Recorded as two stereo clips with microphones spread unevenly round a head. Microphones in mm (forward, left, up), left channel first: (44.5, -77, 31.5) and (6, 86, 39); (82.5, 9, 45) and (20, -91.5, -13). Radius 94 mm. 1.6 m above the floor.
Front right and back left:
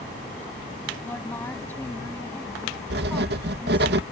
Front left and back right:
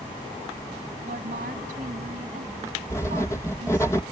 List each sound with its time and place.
1.0 s a woman speaking: 155° right
2.9 s writing: 135° left